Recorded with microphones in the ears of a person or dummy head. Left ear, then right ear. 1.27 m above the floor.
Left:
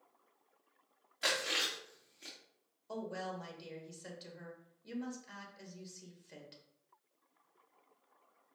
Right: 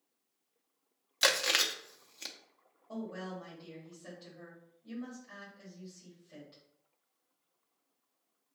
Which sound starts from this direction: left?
A woman speaking, at 2.9 s.